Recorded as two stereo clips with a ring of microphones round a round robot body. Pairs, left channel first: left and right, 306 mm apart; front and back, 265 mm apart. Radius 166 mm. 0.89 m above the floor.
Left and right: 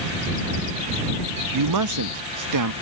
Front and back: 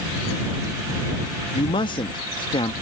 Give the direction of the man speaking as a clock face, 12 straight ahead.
2 o'clock.